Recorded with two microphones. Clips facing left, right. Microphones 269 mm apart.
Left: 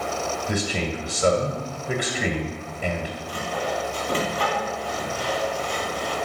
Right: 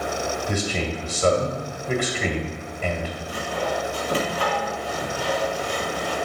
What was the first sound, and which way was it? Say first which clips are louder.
A man speaking: left 2 dB; 15° left (ahead or behind).